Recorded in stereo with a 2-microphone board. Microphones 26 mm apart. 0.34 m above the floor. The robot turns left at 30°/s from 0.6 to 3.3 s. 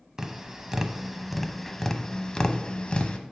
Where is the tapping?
25° right (ahead or behind), 0.7 m; by 3.2 s 50° left (ahead or behind), 0.7 m.